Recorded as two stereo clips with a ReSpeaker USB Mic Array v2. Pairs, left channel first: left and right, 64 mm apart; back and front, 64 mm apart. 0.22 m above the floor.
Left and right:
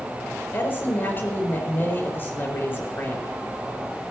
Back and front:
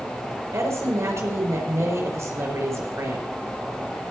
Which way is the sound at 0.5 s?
40° left.